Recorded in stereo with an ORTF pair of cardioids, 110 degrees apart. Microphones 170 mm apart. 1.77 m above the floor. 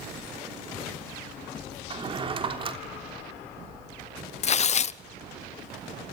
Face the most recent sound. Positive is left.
turn(degrees=40)